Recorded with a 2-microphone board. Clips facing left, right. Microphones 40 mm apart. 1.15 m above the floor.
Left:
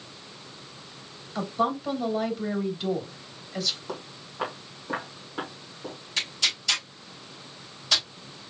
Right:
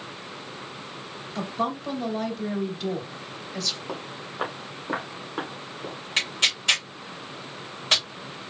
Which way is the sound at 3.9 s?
10° right (ahead or behind).